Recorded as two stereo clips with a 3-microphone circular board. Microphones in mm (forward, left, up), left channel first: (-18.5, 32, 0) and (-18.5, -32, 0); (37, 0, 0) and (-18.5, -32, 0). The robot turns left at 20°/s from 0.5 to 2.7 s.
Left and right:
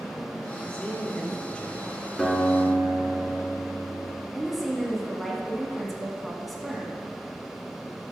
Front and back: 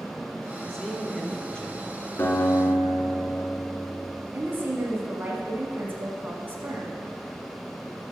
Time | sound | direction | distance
0.7 | a man speaking | 95° left | 1.0 m
2.2 | a guitar | 5° left | 1.7 m
4.3 | a woman speaking | straight behind | 1.4 m